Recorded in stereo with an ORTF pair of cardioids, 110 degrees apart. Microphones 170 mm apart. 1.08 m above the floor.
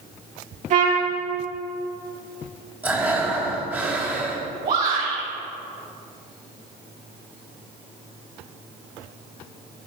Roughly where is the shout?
Ahead right.